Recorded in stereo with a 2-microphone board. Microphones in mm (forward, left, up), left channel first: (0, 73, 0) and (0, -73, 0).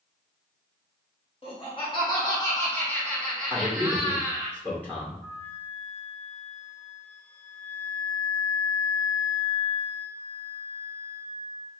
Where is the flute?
15° left (ahead or behind), 1.8 m.